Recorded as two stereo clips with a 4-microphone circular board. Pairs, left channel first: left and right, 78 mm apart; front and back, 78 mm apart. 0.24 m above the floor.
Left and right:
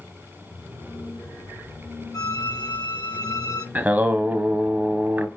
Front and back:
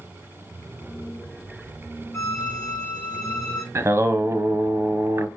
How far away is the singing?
About 0.8 m.